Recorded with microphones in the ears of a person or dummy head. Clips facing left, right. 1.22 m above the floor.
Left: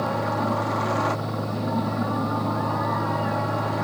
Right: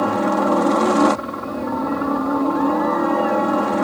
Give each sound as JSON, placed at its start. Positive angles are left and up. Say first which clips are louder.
{"t": 0.0, "sound": "a helicopter", "louder": "right 7 dB", "side_deg": -65}